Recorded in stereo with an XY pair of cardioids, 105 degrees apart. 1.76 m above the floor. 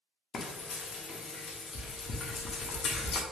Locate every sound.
0.3 s frying: 55° left, 0.6 m